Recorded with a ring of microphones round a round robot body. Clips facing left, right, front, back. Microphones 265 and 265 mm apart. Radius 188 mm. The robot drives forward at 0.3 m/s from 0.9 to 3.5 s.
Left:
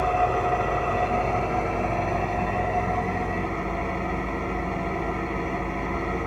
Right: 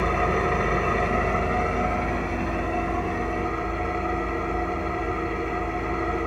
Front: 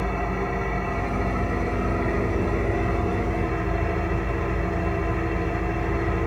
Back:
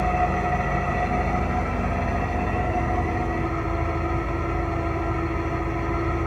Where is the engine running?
155° right, 0.7 m; by 6.3 s 170° right, 1.5 m.